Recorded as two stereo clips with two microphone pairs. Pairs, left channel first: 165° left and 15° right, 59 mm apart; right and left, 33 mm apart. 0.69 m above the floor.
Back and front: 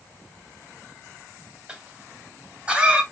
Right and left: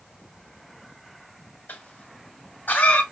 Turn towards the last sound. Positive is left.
turn(degrees=-80)